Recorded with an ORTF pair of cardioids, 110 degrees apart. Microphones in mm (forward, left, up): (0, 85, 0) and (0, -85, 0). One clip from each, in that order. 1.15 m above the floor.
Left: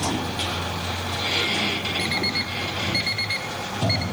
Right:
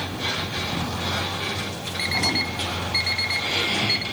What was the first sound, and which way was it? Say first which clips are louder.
An alarm clock: right 6 dB; 5° right.